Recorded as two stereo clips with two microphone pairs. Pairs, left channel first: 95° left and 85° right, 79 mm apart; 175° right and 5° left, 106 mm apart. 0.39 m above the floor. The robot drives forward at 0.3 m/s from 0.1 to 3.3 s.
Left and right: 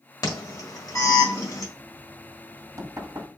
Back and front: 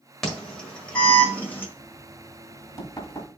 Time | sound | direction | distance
0.2 | an alarm | 100° left | 1.5 m
1.8 | knocking | 115° right | 1.1 m